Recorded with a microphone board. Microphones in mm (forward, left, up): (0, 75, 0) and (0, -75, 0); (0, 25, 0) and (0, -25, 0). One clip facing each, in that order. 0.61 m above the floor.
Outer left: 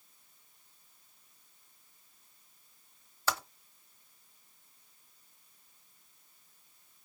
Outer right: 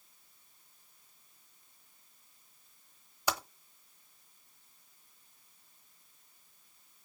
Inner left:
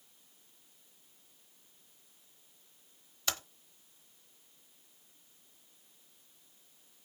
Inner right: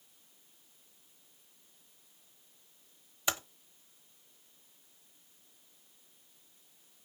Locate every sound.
3.3 s typing on a keyboard: 15° right (ahead or behind), 1.0 m